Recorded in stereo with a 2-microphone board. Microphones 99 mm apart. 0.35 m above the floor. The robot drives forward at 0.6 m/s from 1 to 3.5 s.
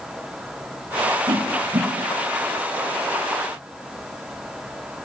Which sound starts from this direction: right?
A whoosh, at 1.3 s.